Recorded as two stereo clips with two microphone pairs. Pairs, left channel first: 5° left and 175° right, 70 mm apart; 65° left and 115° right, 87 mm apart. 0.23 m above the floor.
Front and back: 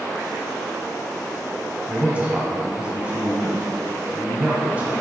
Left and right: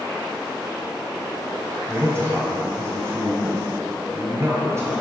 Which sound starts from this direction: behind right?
A man speaking, at 1.9 s.